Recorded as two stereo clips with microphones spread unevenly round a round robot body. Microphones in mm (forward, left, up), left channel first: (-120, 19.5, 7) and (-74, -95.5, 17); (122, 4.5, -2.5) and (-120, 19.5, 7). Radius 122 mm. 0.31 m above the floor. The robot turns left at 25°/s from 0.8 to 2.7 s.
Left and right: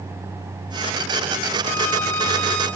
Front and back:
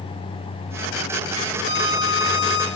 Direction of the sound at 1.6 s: 50° left.